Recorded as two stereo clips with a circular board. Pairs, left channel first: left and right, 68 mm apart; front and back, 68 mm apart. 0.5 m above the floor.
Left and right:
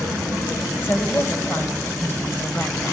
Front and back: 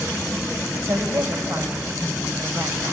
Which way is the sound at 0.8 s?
145° left.